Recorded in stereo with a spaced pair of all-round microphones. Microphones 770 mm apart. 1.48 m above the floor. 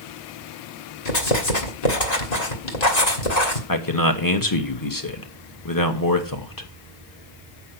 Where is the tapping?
No tapping in this recording.